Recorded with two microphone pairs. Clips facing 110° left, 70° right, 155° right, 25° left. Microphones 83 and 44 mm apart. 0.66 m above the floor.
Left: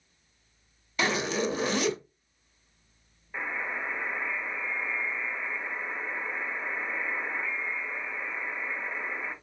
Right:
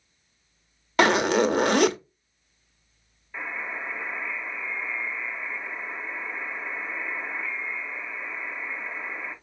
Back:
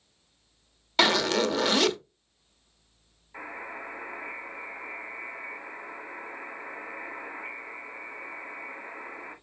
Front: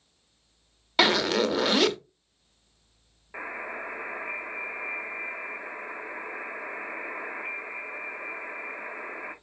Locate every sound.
1.0 s a zipper: 55° right, 0.5 m
3.3 s a buzzer: 35° left, 1.9 m